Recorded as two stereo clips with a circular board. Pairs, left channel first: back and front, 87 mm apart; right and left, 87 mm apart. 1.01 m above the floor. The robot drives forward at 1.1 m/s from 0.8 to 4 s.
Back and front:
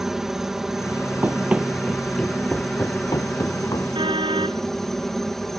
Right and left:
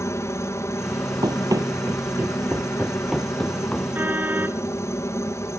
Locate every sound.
0.0 s a helicopter: 80° right; by 5.6 s 95° right
1.2 s running footsteps: 65° left; by 3.9 s 165° right
4.0 s a car horn: 20° left